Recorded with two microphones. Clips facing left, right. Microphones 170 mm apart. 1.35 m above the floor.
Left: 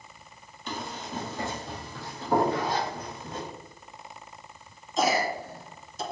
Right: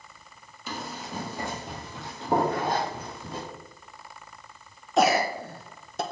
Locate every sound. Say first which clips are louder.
0.7 s running footsteps: even; 5° right (ahead or behind), 2 m; by 3.5 s 30° right (ahead or behind), 3 m
2.5 s a zipper: right 1 dB; 50° right (ahead or behind), 1.3 m
5.0 s a cough: right 4 dB; 65° right (ahead or behind), 0.8 m